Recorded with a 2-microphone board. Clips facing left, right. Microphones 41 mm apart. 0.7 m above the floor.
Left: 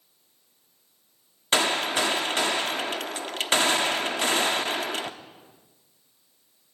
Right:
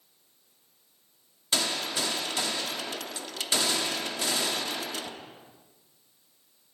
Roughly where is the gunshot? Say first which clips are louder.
Left 6 dB; left.